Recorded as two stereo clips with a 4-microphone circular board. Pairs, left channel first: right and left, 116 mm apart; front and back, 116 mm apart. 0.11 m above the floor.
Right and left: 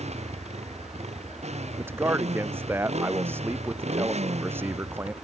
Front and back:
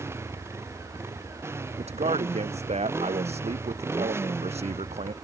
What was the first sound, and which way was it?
A motorcycle, 110° left.